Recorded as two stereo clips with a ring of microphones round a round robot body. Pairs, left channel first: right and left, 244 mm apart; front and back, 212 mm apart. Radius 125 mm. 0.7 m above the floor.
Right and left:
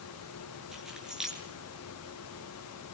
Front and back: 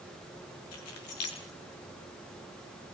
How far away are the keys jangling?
About 7 m.